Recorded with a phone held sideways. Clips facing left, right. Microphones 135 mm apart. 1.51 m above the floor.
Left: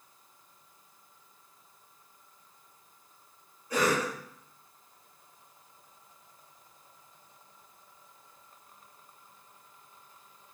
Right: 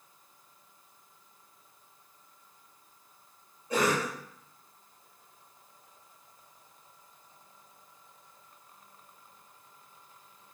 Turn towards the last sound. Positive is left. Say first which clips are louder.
# even
turn(degrees=-25)  # may be behind; listen again after turning